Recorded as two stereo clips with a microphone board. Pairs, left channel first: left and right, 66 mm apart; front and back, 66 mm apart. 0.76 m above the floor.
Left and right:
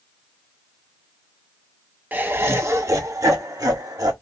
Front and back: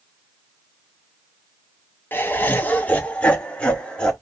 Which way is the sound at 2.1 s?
40° right.